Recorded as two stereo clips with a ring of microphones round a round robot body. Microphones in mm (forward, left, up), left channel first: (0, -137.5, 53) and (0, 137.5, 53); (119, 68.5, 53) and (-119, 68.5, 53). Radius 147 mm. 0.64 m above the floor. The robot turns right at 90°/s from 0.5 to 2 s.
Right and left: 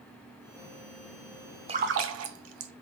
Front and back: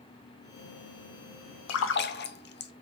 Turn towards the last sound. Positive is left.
turn(degrees=50)